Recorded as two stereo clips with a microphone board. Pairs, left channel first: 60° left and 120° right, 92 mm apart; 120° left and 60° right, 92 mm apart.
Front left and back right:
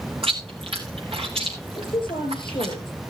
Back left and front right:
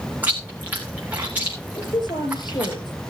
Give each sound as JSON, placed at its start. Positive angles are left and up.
{"t": 0.2, "sound": "chewing", "azimuth_deg": -130, "distance_m": 2.5}
{"t": 1.8, "sound": "a woman speaking", "azimuth_deg": 85, "distance_m": 6.0}